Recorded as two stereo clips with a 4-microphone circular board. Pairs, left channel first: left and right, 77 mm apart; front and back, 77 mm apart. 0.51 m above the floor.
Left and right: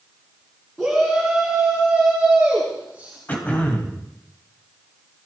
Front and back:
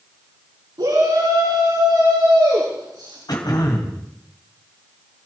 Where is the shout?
Straight behind, 5 m; by 3.2 s 165° right, 6.5 m.